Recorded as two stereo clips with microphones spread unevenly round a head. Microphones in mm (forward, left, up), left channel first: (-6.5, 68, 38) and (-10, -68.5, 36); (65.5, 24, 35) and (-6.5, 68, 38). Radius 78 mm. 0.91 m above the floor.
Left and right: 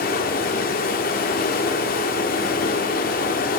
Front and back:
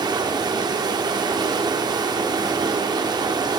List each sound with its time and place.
0.0 s running water: 110° left, 1.4 m